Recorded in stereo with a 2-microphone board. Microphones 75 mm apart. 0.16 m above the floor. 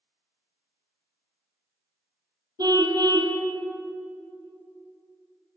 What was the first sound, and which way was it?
A car horn, 60° right (ahead or behind).